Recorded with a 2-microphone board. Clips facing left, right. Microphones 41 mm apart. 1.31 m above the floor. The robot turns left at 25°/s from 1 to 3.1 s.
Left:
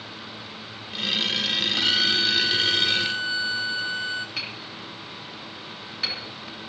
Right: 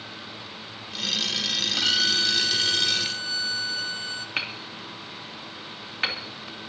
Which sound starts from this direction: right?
Hammering, at 4.4 s.